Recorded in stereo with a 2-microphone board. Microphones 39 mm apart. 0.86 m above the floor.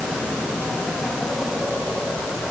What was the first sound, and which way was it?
Only background noise.